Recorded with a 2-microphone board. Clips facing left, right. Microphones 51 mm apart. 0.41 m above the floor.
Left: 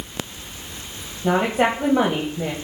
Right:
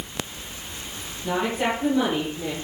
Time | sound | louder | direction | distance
1.2 | a woman speaking | left 5 dB | 55° left (ahead or behind) | 2.5 m